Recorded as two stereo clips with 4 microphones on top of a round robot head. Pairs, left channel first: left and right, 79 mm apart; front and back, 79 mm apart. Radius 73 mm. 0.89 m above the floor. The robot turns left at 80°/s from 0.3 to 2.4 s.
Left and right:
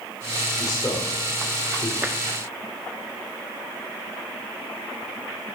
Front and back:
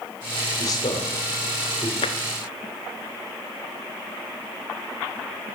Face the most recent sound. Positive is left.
turn(degrees=-45)